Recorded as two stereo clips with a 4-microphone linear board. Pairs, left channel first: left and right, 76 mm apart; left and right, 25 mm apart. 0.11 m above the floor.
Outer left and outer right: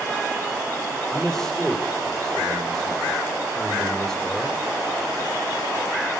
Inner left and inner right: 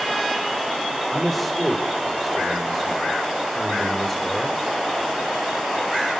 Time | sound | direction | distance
1.1 | a man speaking | centre (ahead or behind) | 4.5 m